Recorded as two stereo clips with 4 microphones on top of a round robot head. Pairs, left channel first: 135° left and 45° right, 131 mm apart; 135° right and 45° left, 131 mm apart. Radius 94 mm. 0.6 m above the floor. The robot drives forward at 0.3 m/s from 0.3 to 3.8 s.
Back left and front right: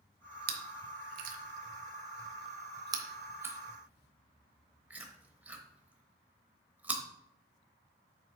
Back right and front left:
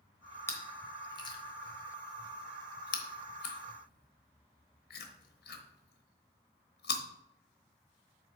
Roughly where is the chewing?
Ahead right.